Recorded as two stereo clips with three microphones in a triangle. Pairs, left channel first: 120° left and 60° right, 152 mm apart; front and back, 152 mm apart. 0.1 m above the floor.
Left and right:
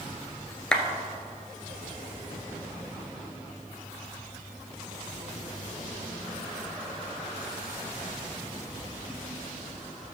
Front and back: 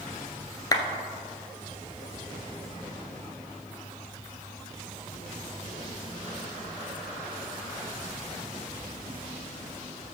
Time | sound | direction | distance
0.7 | a clap | 40° left | 1.1 m